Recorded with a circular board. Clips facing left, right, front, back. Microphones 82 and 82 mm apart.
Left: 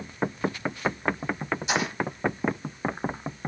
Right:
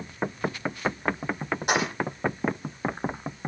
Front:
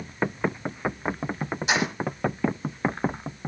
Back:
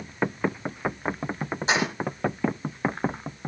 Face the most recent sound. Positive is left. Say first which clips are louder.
# right 3 dB, back 1 dB
turn(degrees=-120)